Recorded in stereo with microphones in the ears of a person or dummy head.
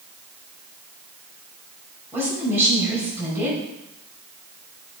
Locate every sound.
2.1 s a woman speaking: 10° right (ahead or behind), 5 m